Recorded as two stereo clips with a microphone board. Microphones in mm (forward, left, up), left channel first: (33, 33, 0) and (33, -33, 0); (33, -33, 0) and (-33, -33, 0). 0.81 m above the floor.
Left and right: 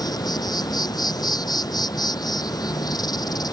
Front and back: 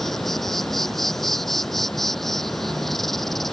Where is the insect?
85° left.